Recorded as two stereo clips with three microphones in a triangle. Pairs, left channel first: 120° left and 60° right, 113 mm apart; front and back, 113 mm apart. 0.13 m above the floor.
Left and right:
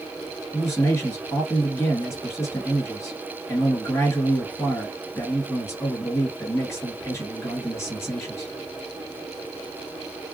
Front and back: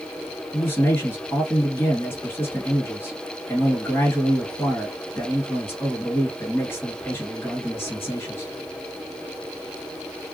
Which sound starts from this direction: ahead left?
A man speaking, at 0.5 s.